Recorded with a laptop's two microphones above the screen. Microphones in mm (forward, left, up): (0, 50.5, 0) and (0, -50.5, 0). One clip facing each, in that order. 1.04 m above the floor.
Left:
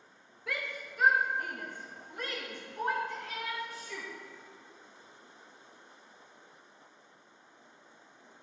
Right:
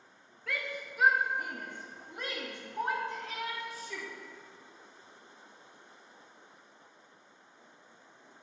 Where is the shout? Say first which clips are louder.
Right 1 dB; 10° left (ahead or behind), 0.6 m; by 4.1 s 35° right (ahead or behind), 2 m.